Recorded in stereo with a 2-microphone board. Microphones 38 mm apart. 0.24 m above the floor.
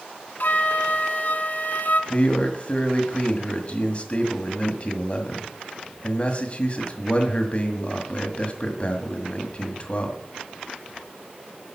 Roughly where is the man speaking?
Left.